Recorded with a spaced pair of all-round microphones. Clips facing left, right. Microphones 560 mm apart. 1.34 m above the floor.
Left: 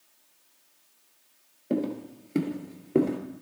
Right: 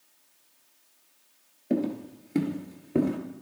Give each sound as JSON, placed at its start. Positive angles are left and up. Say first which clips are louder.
{"t": 1.7, "sound": "footsteps", "louder": "right 1 dB", "side_deg": -20, "distance_m": 1.4}